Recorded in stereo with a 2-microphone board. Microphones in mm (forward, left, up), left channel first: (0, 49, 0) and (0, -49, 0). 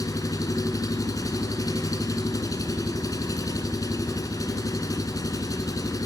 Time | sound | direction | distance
0.0 | an engine running | 40° left (ahead or behind) | 2.5 m